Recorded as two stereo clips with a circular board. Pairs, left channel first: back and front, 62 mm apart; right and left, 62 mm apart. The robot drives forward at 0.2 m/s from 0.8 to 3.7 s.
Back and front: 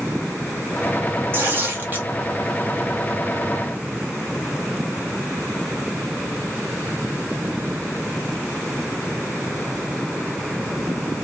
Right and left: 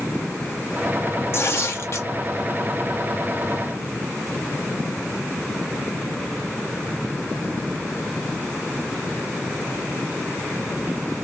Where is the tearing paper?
50° right, 0.9 m; by 2.1 s 60° right, 0.8 m.